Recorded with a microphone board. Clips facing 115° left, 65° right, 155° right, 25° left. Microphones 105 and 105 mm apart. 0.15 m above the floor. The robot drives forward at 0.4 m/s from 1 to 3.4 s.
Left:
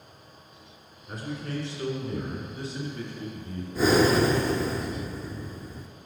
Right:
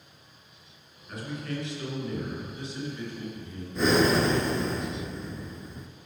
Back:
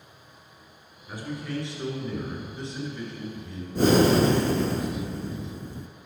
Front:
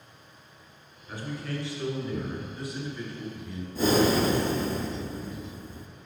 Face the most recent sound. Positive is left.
turn(degrees=-160)